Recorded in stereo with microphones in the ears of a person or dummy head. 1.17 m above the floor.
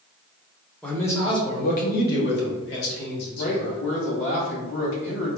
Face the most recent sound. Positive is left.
turn(degrees=60)  # may be behind; listen again after turning